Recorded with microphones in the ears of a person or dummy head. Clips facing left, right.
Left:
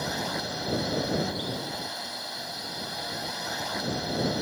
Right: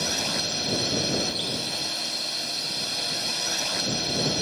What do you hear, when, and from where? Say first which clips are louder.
0.0 s a drone: right 1 dB; 40° right (ahead or behind)